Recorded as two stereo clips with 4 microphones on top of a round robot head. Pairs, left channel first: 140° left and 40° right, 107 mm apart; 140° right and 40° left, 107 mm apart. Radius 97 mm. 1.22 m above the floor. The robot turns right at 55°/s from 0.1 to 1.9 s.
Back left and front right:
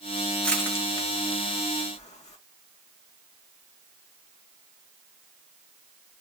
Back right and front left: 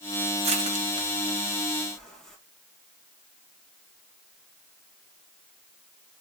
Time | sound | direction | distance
0.4 | crushing | 55° left | 2.5 m